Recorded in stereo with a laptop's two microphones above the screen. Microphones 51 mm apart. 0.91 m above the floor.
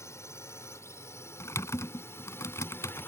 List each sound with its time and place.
0.0 s a drone: 70° left (ahead or behind); by 3.1 s 45° left (ahead or behind)
1.4 s typing on a keyboard: 75° left (ahead or behind)